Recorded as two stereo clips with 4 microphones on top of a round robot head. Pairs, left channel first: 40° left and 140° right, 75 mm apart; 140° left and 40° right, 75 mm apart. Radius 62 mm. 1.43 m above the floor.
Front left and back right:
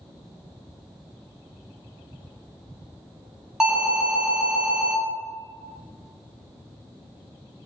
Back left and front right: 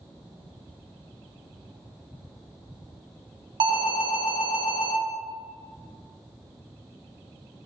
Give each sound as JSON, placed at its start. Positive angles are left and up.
{"t": 3.6, "sound": "an alarm", "azimuth_deg": -60, "distance_m": 1.6}